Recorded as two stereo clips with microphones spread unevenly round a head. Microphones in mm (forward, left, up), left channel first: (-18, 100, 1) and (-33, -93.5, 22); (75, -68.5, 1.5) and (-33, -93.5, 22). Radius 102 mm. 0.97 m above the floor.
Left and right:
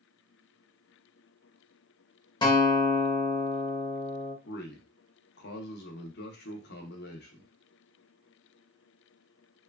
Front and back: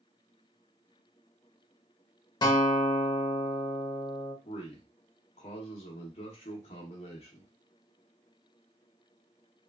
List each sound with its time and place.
2.4 s a guitar: 35° left, 0.7 m
4.5 s a man speaking: 50° left, 0.7 m